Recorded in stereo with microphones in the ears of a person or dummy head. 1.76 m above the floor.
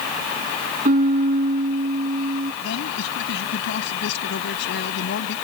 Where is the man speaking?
70° left (ahead or behind).